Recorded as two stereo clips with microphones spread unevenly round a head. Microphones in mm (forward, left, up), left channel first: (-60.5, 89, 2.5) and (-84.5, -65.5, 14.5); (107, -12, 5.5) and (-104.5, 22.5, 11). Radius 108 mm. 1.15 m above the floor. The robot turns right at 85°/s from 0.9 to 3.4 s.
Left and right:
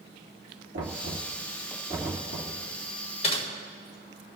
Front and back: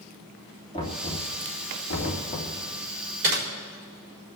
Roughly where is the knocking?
Right.